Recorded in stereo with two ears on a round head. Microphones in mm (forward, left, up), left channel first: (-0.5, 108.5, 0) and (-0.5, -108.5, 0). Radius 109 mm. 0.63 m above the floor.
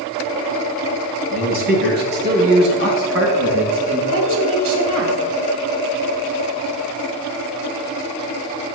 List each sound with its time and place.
1.3 s a man speaking: 35° right (ahead or behind), 4 m; by 4.0 s 60° right (ahead or behind), 5.5 m
4.1 s a woman speaking: 55° right (ahead or behind), 3 m